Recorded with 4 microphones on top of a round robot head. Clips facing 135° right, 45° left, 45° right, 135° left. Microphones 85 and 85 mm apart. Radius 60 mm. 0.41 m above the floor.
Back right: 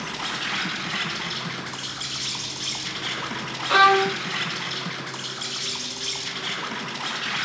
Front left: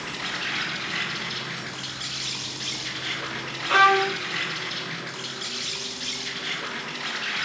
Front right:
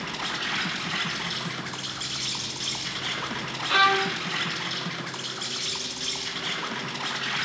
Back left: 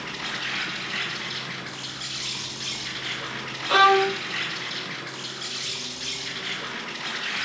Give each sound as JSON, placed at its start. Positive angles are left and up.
{"t": 0.0, "sound": "an insect", "azimuth_deg": -90, "distance_m": 5.5}
{"t": 3.7, "sound": "a violin", "azimuth_deg": 150, "distance_m": 0.5}